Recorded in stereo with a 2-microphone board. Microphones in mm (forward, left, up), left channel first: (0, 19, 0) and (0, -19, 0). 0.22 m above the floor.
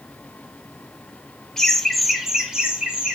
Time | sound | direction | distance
1.6 | laughter | 10° left (ahead or behind) | 1.0 m